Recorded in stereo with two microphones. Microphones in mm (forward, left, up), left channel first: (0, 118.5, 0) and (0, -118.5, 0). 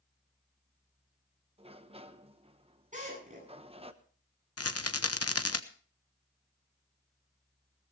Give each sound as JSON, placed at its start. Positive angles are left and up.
{"t": 1.6, "sound": "a sliding door", "side_deg": -25, "distance_m": 1.0}
{"t": 2.9, "sound": "a drill", "side_deg": -30, "distance_m": 8.5}
{"t": 4.6, "sound": "a rattle", "side_deg": 80, "distance_m": 1.0}